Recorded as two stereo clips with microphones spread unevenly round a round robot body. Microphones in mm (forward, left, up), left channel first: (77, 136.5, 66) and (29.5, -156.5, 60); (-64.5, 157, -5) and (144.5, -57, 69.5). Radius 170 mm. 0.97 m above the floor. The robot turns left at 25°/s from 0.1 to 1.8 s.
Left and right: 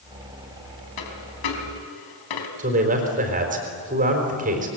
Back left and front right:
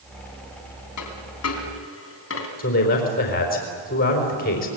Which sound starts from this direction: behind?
A man speaking, at 2.6 s.